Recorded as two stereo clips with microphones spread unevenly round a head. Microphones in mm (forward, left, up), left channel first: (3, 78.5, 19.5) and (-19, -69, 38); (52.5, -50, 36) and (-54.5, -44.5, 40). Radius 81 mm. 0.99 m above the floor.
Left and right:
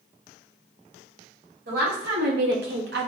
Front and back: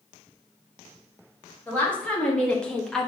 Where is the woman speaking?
80° right, 2 m; by 3.1 s 90° right, 1.1 m.